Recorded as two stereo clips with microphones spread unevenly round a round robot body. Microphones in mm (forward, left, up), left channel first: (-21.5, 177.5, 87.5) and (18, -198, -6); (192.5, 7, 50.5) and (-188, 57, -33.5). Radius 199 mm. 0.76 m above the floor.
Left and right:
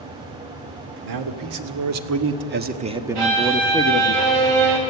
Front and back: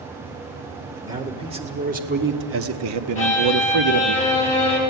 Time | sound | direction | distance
1.0 | a man speaking | 110° right | 2 m
3.1 | a violin | 85° right | 5 m